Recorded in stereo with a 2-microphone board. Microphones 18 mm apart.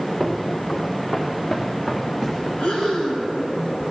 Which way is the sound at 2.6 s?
75° left (ahead or behind).